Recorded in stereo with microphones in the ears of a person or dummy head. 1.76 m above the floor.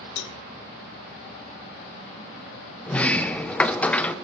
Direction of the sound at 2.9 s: 10° left (ahead or behind).